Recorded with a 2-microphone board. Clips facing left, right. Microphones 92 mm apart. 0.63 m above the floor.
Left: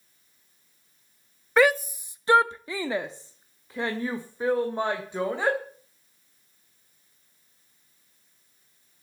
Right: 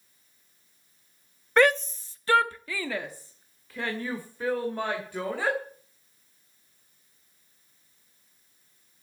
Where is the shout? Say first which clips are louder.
Left 1 dB; 5° left (ahead or behind), 0.7 m; by 5.6 s 20° left (ahead or behind), 3 m.